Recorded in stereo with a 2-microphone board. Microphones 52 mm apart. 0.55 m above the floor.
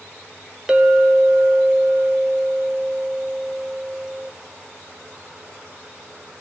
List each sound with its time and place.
0.7 s a clink: 15° right (ahead or behind), 1.0 m